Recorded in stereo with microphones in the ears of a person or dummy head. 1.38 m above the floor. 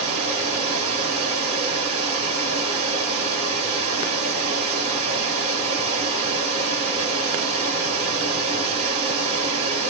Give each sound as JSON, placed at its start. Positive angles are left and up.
{"t": 0.0, "sound": "running water", "side_deg": -40, "distance_m": 1.9}